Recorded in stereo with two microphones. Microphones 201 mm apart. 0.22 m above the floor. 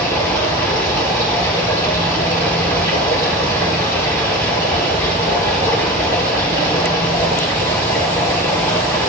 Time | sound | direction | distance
0.0 | running water | 10° left (ahead or behind) | 6 m